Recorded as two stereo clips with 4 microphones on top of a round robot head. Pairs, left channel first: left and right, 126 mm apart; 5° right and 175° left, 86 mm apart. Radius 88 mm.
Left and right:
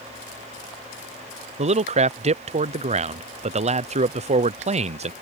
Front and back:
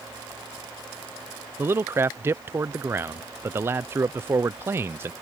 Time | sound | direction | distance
1.6 | a man speaking | 120° right | ?